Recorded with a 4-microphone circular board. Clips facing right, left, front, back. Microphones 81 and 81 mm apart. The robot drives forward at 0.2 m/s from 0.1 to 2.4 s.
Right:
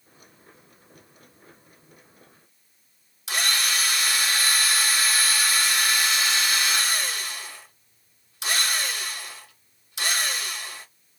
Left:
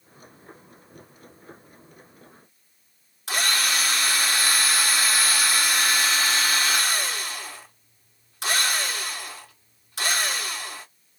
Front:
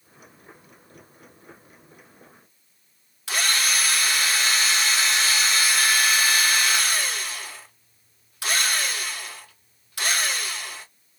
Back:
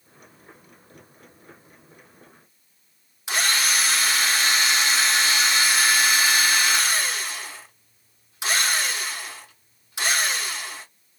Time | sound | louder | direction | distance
3.3 | a drill | left 1 dB, back 1 dB | 115° left | 1.7 m